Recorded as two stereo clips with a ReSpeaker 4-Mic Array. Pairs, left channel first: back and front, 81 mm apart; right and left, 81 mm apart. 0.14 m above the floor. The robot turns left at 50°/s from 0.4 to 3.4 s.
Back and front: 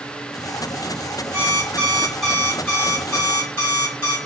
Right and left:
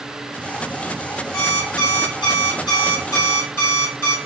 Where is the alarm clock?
50° right, 2 m; by 4.2 s 155° right, 2 m.